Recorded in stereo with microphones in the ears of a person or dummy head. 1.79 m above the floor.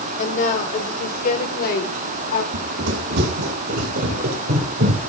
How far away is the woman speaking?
About 4.5 m.